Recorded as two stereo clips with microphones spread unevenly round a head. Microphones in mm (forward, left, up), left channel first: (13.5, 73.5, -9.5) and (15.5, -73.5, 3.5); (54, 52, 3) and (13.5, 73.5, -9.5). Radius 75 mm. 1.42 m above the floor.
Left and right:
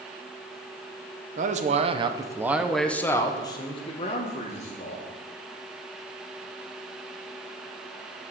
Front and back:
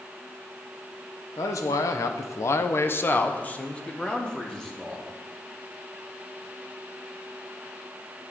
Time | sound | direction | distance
1.4 | a man speaking | 55° right | 1.2 m